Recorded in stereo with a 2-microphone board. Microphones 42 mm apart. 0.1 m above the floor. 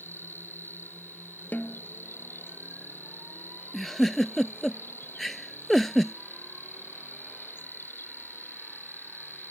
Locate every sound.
0.0 s an insect: 60° left (ahead or behind)
1.5 s a snare drum: 40° left (ahead or behind)
3.7 s a giggle: 5° left (ahead or behind)